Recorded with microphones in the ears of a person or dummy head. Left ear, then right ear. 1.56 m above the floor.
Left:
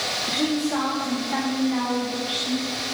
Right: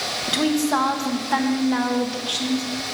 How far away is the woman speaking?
About 1.5 m.